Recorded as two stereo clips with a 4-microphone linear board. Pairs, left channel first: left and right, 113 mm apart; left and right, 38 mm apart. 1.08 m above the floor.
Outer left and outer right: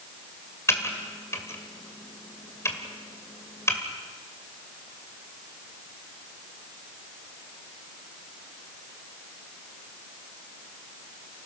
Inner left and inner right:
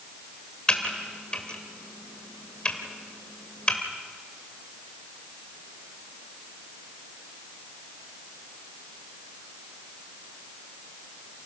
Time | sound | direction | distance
0.7 | typing on a keyboard | 25° left (ahead or behind) | 2 m